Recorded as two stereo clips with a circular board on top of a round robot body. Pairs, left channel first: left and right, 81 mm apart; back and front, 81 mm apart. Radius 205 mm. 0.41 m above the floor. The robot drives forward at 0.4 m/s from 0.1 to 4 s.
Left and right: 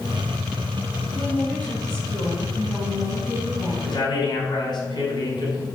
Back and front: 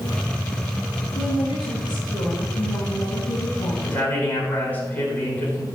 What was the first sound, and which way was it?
A woman speaking, 160° left.